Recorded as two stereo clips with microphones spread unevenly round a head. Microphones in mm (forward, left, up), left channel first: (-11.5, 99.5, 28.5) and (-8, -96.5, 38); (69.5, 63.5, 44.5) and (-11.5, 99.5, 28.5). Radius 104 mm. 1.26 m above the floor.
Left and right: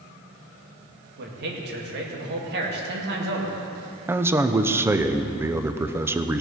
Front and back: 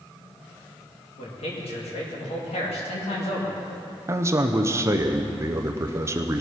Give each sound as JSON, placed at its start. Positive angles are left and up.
{"t": 1.2, "sound": "a man speaking", "azimuth_deg": -50, "distance_m": 2.0}
{"t": 4.1, "sound": "a man speaking", "azimuth_deg": -165, "distance_m": 0.6}